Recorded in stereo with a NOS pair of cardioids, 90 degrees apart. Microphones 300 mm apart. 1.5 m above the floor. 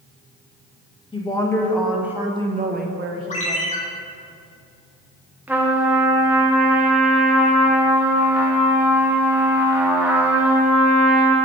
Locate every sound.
1.1 s a woman speaking: 15° left, 2 m; by 3.7 s 65° right, 1.6 m
3.3 s a ringtone: 25° left, 2 m
5.5 s a trumpet: 5° right, 1.4 m